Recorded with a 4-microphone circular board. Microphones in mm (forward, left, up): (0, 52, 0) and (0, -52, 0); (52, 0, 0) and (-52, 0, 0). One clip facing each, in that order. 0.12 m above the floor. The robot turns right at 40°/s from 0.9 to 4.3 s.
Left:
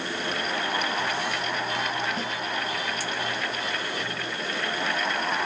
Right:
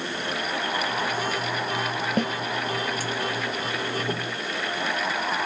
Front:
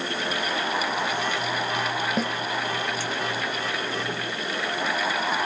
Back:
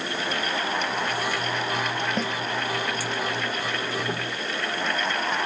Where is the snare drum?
85° right, 1.2 m; by 2.3 s 80° right, 1.2 m.